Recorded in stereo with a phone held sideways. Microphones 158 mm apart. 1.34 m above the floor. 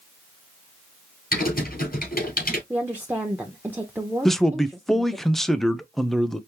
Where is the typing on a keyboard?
70° left (ahead or behind), 3.5 m.